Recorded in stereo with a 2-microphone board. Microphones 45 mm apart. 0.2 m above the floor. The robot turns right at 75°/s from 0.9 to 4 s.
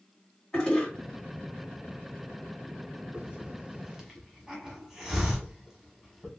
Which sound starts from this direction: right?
A hiss, at 3.1 s.